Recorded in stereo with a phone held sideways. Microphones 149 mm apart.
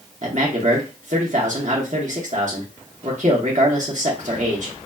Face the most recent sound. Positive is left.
turn(degrees=-60)  # may be behind; listen again after turning